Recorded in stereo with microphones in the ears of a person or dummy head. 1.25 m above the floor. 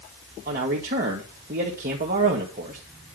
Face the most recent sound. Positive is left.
turn(degrees=-40)  # may be behind; listen again after turning